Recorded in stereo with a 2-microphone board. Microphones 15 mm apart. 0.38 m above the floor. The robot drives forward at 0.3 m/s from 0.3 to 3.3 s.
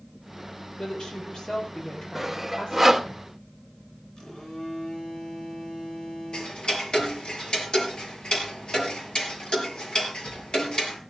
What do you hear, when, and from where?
0.8 s a woman speaking: 55° left (ahead or behind), 8 m
2.1 s sawing: 15° right (ahead or behind), 1.5 m; by 3.1 s 10° right (ahead or behind), 1.6 m
4.2 s a phone buzzing: 55° left (ahead or behind), 9 m
6.3 s ticking: 70° left (ahead or behind), 4 m